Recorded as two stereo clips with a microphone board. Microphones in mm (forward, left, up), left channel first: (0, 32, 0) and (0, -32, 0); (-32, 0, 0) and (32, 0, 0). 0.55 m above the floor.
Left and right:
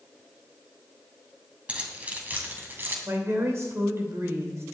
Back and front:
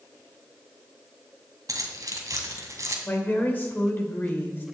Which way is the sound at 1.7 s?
20° right.